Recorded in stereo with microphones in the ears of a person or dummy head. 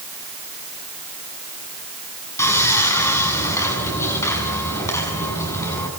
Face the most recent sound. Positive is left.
turn(degrees=10)  # may be behind; listen again after turning